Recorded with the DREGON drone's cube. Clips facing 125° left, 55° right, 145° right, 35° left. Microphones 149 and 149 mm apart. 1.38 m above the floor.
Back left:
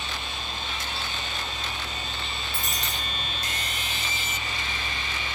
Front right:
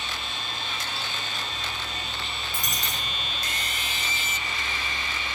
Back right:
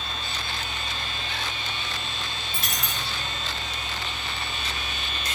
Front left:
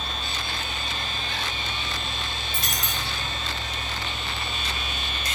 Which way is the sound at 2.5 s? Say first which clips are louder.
Even, front left 1 dB; 125° right.